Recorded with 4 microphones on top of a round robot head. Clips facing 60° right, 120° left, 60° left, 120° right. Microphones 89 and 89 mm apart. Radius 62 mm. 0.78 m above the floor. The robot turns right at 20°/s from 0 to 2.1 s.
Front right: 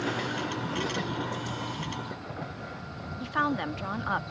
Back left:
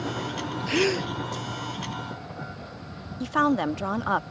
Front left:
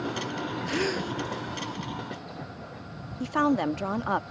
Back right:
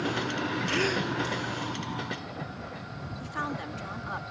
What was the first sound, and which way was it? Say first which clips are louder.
A gasp: back left 7 dB, front left 1 dB; 135° left.